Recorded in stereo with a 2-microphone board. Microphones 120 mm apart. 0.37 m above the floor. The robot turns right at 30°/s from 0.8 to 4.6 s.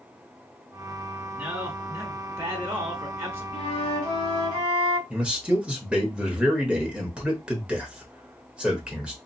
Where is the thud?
I don't hear a thud.